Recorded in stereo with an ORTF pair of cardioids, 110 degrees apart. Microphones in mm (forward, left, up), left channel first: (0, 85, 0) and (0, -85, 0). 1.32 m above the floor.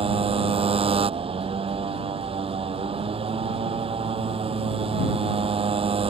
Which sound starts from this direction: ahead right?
A motorcycle, at 0.0 s.